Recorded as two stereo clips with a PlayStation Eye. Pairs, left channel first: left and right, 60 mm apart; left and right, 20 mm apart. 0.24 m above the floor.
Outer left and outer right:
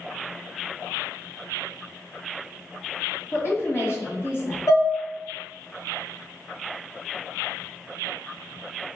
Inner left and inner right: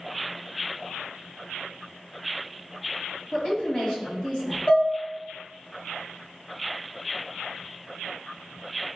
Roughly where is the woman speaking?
Left.